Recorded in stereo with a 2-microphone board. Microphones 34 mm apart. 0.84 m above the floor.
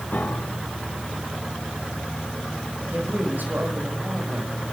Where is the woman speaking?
65° right (ahead or behind), 5.5 m.